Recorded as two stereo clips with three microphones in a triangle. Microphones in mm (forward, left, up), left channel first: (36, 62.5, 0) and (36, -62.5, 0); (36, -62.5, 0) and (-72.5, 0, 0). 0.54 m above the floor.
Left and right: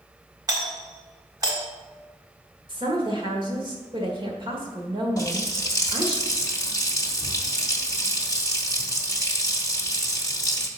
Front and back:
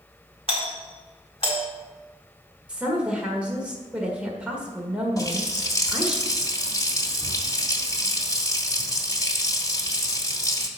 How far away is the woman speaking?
About 1.5 m.